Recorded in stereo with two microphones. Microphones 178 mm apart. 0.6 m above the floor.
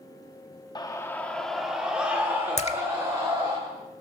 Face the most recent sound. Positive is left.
turn(degrees=35)  # may be behind; listen again after turning